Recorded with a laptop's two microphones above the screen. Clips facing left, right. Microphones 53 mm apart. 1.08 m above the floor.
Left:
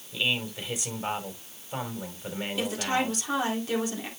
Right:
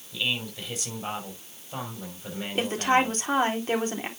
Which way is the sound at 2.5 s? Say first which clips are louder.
Right 6 dB; 40° right (ahead or behind).